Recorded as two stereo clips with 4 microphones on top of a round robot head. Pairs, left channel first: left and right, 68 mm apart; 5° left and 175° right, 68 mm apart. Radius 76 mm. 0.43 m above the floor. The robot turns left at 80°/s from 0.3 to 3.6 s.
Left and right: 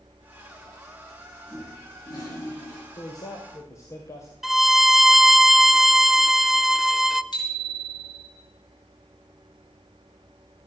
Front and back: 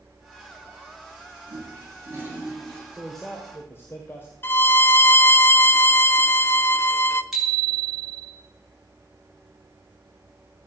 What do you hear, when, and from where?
1.5 s a toilet flushing: 175° right, 6 m; by 2.8 s 75° left, 6 m
2.9 s a man speaking: 110° left, 2 m; by 4.3 s 55° left, 2 m
4.4 s a violin: 5° right, 0.7 m
7.3 s a bicycle bell: 95° left, 5 m